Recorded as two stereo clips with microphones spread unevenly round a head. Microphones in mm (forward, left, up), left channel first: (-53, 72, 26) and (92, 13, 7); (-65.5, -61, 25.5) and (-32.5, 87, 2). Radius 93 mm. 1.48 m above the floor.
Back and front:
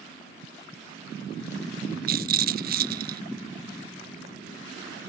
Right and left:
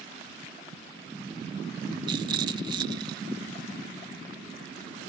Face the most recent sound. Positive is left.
turn(degrees=5)